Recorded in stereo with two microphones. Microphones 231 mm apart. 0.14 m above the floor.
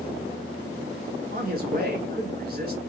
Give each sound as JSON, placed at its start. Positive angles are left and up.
{"t": 1.3, "sound": "a man speaking", "side_deg": -40, "distance_m": 1.6}